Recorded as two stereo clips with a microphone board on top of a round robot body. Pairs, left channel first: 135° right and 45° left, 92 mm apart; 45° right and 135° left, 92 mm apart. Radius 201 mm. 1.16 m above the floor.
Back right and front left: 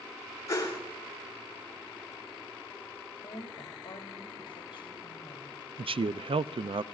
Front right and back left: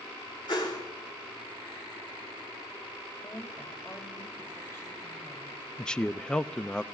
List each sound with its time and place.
0.5 s a whoosh: 80° right, 5 m
3.2 s a woman speaking: 105° right, 2.5 m
5.8 s a man speaking: 35° left, 0.5 m